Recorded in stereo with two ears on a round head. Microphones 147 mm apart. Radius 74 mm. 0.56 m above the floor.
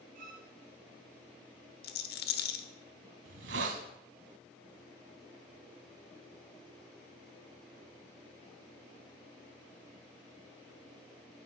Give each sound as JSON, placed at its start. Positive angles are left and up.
{"t": 0.1, "sound": "a violin", "side_deg": -55, "distance_m": 2.5}
{"t": 1.8, "sound": "a rattle", "side_deg": 65, "distance_m": 1.0}
{"t": 3.2, "sound": "a hiss", "side_deg": -80, "distance_m": 1.2}